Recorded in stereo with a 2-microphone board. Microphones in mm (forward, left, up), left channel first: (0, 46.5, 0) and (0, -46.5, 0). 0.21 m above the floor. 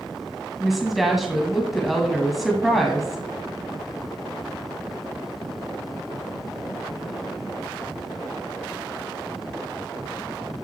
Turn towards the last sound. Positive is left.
turn(degrees=0)  # may be behind; listen again after turning